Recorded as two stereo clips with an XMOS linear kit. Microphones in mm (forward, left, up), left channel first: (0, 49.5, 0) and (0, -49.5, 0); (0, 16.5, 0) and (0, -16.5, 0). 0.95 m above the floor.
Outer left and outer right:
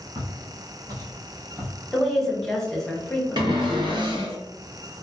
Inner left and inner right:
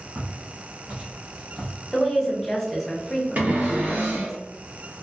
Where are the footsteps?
50° right (ahead or behind), 1.5 m; by 1.7 s 20° right (ahead or behind), 1.0 m.